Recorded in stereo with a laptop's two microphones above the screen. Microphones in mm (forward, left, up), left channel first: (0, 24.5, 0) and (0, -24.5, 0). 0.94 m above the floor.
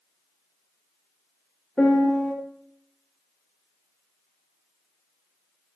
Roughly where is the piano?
Left.